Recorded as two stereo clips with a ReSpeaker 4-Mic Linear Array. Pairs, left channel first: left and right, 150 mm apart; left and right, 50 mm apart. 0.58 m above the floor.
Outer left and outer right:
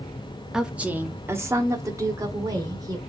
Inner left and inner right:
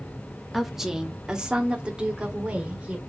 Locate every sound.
0.5 s a woman speaking: 5° right (ahead or behind), 0.6 m; by 3.0 s 25° right (ahead or behind), 1.7 m